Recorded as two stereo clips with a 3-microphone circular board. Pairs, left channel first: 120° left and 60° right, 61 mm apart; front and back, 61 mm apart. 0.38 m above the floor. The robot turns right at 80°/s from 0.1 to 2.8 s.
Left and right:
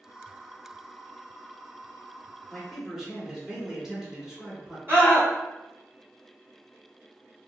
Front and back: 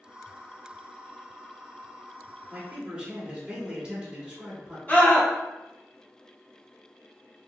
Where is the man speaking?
155° right, 1.2 m; by 4.8 s 130° right, 1.2 m.